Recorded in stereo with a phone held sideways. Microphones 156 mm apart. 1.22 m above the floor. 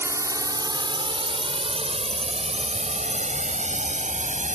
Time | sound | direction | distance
0.0 | a drone | 15° right (ahead or behind) | ?